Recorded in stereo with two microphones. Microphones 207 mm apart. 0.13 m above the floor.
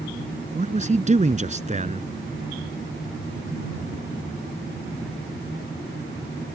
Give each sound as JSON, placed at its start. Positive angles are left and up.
{"t": 0.6, "sound": "a man speaking", "side_deg": -35}